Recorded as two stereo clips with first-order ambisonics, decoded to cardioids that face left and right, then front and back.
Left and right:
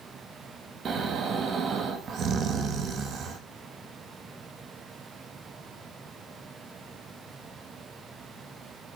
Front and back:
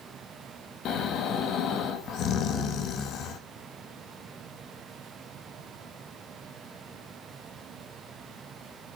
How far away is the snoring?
About 1.5 m.